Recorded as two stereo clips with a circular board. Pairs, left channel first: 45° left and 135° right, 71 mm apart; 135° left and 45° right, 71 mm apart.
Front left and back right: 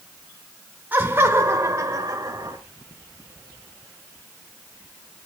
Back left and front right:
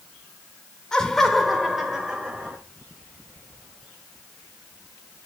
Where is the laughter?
155° right, 1.2 m; by 2.6 s 120° right, 2.0 m.